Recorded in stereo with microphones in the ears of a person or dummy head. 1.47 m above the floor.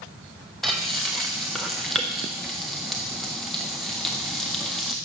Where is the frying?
5° right (ahead or behind), 0.6 m.